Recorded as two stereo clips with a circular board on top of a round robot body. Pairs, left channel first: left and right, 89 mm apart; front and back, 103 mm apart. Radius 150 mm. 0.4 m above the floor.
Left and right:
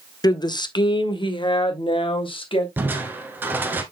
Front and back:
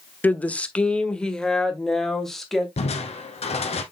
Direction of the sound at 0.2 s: 70° left.